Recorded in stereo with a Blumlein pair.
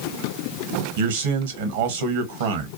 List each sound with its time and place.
1.0 s a man speaking: 55° right, 0.9 m